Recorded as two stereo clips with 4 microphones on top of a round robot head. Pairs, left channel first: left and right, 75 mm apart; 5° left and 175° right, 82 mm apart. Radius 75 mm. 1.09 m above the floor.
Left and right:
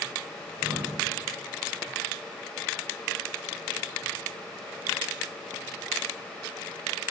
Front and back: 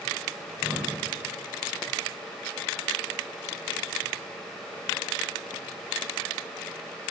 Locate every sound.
0.4 s breathing: 90° right, 2.5 m